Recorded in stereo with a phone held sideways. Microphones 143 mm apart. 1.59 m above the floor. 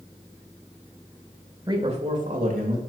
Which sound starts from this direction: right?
A man speaking, at 1.7 s.